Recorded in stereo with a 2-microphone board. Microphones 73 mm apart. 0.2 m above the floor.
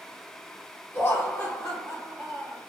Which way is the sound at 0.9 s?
30° left (ahead or behind).